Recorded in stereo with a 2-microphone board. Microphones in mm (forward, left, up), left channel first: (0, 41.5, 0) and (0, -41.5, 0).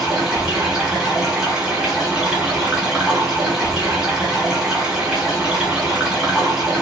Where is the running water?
10° right (ahead or behind), 1.2 m.